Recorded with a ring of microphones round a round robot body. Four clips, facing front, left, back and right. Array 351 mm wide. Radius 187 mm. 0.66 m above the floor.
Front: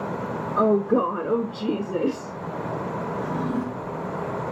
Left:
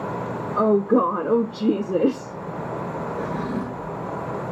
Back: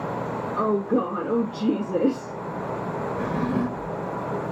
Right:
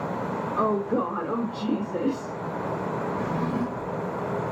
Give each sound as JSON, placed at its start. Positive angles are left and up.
{"t": 0.6, "sound": "a woman speaking", "azimuth_deg": 55, "distance_m": 1.0}
{"t": 3.2, "sound": "a drawer", "azimuth_deg": -175, "distance_m": 2.0}